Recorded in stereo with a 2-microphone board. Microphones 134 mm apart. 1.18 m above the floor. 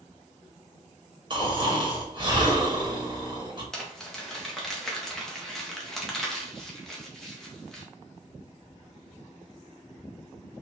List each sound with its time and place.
1.3 s snoring: 35° right (ahead or behind), 1.4 m
3.7 s crumpling: 5° left (ahead or behind), 1.0 m